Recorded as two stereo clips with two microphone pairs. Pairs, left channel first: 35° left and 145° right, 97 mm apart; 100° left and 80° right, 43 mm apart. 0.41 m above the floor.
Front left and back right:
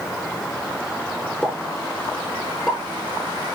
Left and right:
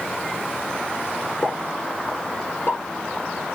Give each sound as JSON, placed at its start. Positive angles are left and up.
{"t": 1.4, "sound": "a pop", "azimuth_deg": 130, "distance_m": 6.5}